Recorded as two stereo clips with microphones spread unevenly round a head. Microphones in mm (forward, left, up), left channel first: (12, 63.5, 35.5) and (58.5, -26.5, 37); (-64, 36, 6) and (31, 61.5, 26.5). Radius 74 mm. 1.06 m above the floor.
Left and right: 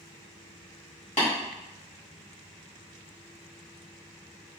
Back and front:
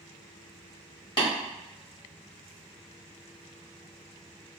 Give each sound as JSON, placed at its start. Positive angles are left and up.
{"t": 1.2, "sound": "tapping", "azimuth_deg": 155, "distance_m": 1.7}